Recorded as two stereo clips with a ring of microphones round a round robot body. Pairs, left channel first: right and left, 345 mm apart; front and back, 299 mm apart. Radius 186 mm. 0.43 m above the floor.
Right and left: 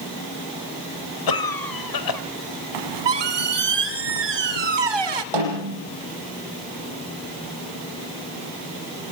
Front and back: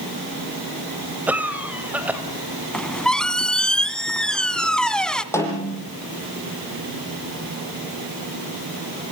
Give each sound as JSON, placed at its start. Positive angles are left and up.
{"t": 1.3, "sound": "a cough", "azimuth_deg": -95, "distance_m": 2.5}
{"t": 2.7, "sound": "a squeak", "azimuth_deg": 85, "distance_m": 1.7}
{"t": 5.3, "sound": "a snare drum", "azimuth_deg": 80, "distance_m": 8.0}